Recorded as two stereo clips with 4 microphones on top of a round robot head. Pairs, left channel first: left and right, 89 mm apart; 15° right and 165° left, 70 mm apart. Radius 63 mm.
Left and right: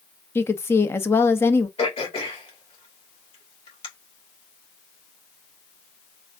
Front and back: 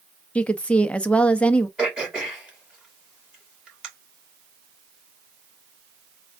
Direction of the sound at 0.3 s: 50° left.